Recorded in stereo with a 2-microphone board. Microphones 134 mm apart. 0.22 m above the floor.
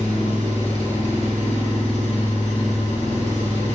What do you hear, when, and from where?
0.0 s an engine running: 45° left (ahead or behind), 0.9 m